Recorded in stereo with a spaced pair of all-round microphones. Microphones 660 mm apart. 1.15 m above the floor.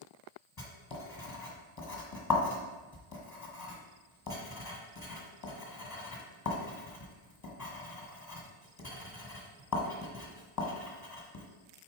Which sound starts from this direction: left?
Writing, at 0.6 s.